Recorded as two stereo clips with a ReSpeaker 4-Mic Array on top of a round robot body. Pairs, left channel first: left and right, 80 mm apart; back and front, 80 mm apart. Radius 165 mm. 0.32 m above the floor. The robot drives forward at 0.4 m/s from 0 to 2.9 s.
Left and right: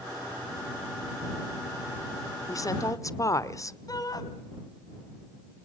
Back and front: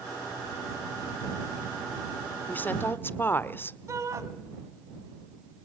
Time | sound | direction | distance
2.5 | a woman speaking | 115° left | 1.5 m
3.9 | a shout | 50° left | 3.5 m